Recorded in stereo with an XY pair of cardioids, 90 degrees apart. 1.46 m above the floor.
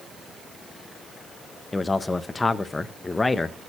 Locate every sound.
1.7 s a man speaking: 25° left, 0.5 m